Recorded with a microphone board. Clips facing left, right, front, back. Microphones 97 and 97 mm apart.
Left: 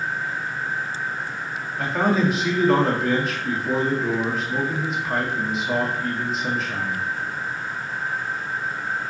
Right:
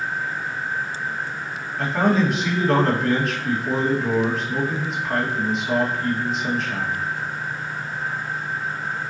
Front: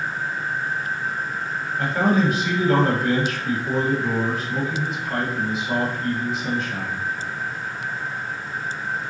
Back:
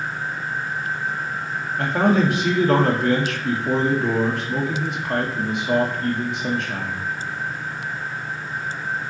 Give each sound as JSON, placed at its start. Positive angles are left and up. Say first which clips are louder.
{"t": 1.8, "sound": "a man speaking", "louder": "right 1 dB, back 2 dB", "azimuth_deg": 180, "distance_m": 2.0}